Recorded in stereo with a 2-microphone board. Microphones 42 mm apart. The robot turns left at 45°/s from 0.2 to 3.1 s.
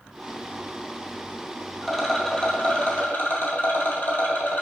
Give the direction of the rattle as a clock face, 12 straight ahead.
6 o'clock.